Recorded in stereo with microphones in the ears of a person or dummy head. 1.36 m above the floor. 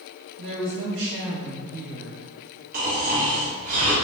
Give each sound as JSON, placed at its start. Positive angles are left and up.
{"t": 0.4, "sound": "a woman speaking", "side_deg": -70, "distance_m": 1.3}
{"t": 2.7, "sound": "snoring", "side_deg": -45, "distance_m": 0.9}